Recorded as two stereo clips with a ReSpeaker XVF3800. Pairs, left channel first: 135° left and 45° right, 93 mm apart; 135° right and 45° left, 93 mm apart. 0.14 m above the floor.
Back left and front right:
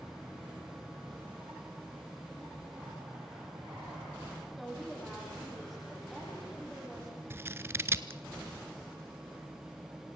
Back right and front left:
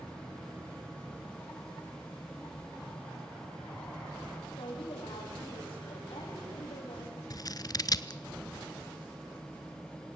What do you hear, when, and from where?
4.6 s a woman speaking: 135° right, 7 m
7.3 s scissors: 100° right, 0.7 m